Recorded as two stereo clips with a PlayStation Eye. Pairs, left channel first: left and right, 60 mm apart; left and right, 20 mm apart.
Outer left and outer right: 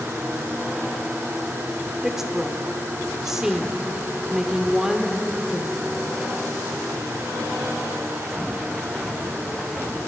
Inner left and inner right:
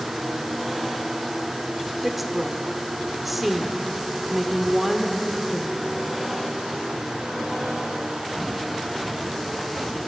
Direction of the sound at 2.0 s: 5° right (ahead or behind).